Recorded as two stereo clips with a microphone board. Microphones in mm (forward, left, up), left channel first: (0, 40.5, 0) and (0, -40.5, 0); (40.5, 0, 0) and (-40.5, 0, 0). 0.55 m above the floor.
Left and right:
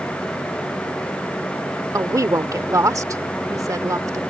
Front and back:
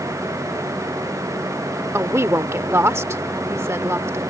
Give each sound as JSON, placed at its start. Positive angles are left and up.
{"t": 1.9, "sound": "a woman speaking", "azimuth_deg": -130}